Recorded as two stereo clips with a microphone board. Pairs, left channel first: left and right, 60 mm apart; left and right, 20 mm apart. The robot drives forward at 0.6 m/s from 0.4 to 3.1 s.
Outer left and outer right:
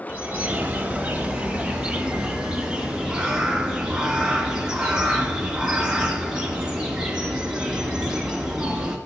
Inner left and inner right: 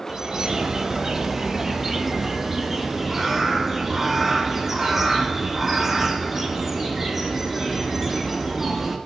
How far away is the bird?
About 1.1 m.